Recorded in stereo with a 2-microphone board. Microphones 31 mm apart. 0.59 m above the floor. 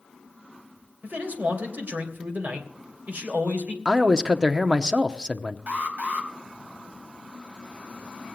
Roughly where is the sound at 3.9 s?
Right.